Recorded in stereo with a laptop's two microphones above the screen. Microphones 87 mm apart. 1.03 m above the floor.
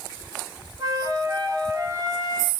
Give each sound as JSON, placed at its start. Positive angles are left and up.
{"t": 0.8, "sound": "a flute", "side_deg": -40, "distance_m": 0.6}